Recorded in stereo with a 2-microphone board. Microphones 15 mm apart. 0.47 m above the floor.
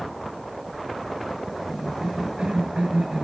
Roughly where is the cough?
Right.